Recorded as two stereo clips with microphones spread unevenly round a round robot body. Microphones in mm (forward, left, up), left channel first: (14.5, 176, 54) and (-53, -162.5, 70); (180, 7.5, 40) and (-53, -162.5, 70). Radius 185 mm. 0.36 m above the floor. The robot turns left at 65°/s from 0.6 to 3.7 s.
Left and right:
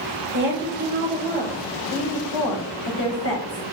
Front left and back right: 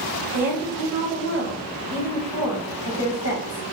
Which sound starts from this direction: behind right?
A woman speaking, at 0.3 s.